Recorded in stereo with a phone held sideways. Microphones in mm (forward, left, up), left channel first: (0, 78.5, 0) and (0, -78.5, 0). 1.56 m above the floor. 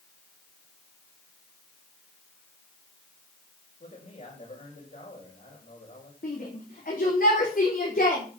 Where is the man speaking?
50° left (ahead or behind), 6.5 m.